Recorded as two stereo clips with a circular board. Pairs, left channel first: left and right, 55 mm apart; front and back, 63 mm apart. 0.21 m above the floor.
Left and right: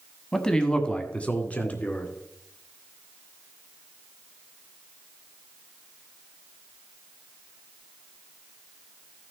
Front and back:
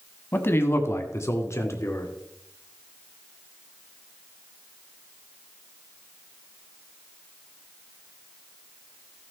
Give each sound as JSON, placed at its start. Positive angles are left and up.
{"t": 0.3, "sound": "a man speaking", "azimuth_deg": 15, "distance_m": 1.3}